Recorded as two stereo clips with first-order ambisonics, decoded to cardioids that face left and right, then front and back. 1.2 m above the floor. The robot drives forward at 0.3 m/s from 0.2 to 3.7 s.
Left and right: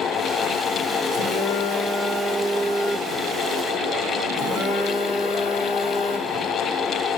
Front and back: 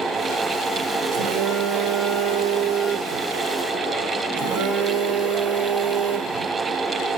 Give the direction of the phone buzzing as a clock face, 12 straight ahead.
6 o'clock.